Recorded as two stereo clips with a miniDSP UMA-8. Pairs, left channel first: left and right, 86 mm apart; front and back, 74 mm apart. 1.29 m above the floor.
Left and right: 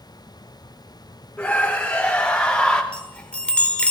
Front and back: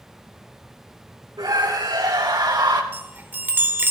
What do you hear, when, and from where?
1.4 s a scream: 165° left, 3 m; by 2.8 s 170° left, 2 m
2.9 s a chime: 155° left, 1.0 m